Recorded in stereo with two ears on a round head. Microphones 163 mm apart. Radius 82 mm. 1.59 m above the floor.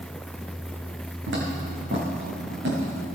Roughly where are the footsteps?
Right.